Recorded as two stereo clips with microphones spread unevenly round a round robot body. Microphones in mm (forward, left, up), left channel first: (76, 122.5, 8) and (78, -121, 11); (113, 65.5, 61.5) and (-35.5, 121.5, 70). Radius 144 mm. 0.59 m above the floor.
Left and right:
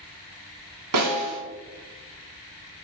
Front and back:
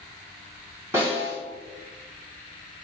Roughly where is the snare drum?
Behind right.